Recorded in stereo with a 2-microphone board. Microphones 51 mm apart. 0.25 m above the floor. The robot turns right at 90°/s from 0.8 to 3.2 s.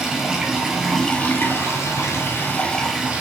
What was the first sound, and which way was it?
Running water, 15° right.